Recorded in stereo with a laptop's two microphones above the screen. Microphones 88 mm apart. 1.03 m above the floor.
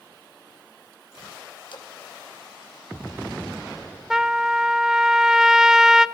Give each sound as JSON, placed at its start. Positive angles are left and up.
{"t": 1.7, "sound": "a splash", "side_deg": 65, "distance_m": 1.5}
{"t": 4.1, "sound": "a trumpet", "side_deg": -5, "distance_m": 0.6}